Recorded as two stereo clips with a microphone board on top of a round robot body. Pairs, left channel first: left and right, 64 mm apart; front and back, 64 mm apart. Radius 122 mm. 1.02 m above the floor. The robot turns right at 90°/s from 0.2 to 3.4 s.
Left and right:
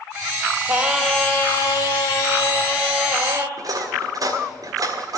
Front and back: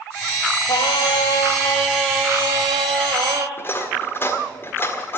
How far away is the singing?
About 1.2 m.